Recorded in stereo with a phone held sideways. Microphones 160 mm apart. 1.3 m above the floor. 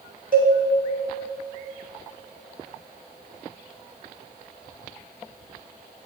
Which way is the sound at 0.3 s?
65° right (ahead or behind).